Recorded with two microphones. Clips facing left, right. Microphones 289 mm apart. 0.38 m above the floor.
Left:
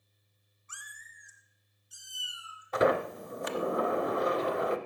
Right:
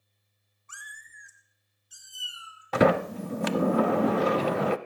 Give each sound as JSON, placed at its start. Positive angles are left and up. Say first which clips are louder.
{"t": 0.7, "sound": "a cat meowing", "louder": "right 3 dB", "side_deg": -60, "distance_m": 1.2}
{"t": 2.7, "sound": "a sliding door", "louder": "right 5 dB", "side_deg": -80, "distance_m": 0.5}